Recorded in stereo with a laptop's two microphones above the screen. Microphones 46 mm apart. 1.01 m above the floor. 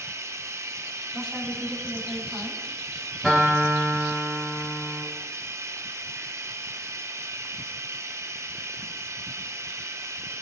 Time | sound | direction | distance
0.0 | running water | 75° right (ahead or behind) | 0.9 m
1.1 | a woman speaking | 5° left (ahead or behind) | 7.5 m
3.2 | a guitar | 10° left (ahead or behind) | 6.5 m